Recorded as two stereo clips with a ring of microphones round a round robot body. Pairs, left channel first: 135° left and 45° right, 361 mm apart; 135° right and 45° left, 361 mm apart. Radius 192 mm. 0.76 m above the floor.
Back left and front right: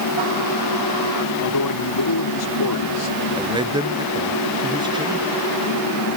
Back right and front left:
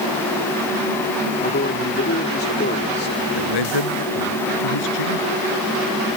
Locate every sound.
1.4 s a man speaking: 165° left
3.4 s a man speaking: 125° right